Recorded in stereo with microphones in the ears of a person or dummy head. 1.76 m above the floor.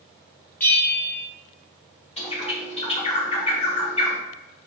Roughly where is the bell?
Centre.